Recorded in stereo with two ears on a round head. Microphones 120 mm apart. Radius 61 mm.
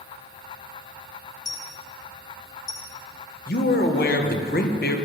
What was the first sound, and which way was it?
A dropped coin, 30° left (ahead or behind).